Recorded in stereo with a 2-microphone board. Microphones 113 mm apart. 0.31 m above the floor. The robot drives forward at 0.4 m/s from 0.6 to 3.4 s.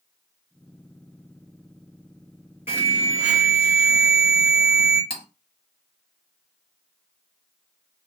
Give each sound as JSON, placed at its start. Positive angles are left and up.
{"t": 2.7, "sound": "an alarm", "side_deg": -15, "distance_m": 2.0}
{"t": 5.1, "sound": "cutlery clinking", "side_deg": 50, "distance_m": 1.0}